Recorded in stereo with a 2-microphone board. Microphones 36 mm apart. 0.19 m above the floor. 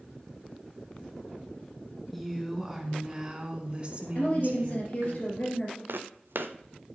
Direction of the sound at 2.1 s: 5° left (ahead or behind).